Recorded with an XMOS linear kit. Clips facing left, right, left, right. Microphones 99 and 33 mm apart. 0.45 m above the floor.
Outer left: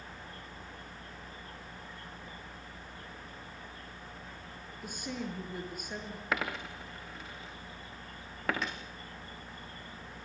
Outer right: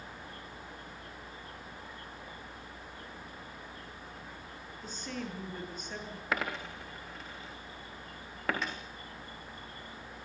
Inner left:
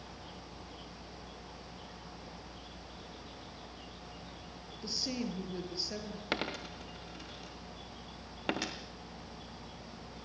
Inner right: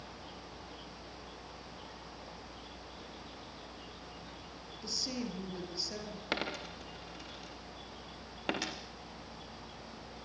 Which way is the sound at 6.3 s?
Centre (ahead or behind).